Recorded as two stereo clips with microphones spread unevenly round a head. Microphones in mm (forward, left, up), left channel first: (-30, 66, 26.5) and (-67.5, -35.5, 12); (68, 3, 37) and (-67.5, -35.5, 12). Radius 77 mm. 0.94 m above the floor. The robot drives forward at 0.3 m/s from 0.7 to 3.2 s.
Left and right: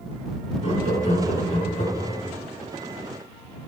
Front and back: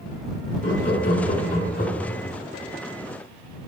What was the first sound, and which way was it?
Laughter, 45° left.